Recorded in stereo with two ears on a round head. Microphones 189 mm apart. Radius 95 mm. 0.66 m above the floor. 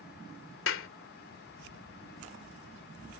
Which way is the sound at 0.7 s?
70° left (ahead or behind).